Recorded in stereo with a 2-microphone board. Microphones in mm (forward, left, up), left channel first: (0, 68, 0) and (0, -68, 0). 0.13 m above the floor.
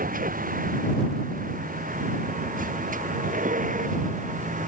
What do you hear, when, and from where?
0.0 s a vehicle: 75° right (ahead or behind); by 4.7 s 65° right (ahead or behind)